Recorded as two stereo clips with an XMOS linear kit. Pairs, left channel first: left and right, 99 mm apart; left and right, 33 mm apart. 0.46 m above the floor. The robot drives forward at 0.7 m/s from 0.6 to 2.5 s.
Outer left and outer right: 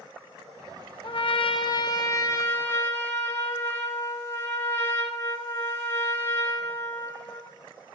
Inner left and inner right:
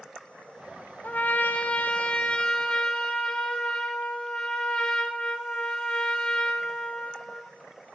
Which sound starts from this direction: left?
A trumpet, at 1.0 s.